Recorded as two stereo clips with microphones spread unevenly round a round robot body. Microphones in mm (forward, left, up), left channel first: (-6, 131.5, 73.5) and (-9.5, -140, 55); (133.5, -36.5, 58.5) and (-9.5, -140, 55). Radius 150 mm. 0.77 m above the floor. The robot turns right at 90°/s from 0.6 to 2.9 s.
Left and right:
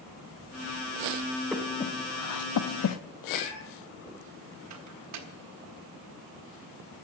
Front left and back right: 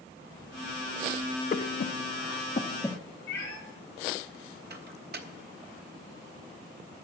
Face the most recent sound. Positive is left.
turn(degrees=-115)